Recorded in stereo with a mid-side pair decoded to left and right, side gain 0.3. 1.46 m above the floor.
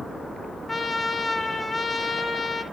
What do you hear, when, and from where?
0.7 s a trumpet: 25° left, 2.5 m